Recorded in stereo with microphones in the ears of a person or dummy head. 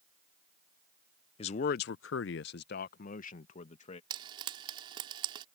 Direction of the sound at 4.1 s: 30° right (ahead or behind).